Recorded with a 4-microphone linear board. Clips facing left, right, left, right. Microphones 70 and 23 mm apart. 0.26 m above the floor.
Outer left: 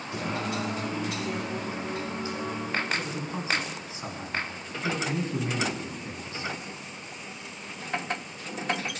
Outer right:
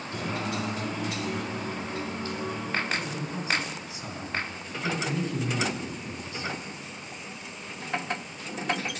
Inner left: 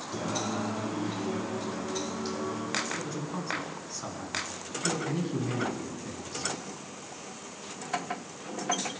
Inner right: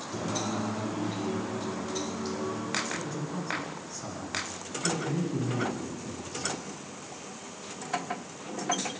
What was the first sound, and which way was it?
Singing, 15° left (ahead or behind).